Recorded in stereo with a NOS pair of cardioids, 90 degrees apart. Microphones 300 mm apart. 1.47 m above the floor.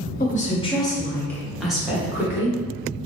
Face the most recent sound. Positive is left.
turn(degrees=-10)